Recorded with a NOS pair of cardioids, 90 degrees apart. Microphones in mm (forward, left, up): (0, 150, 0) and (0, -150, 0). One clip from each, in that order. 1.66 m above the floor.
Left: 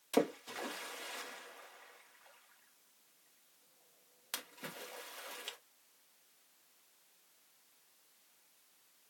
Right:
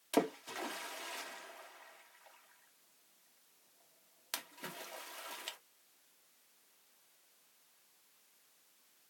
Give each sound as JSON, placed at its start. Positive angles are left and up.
{"t": 0.1, "sound": "a splash", "azimuth_deg": -10, "distance_m": 1.0}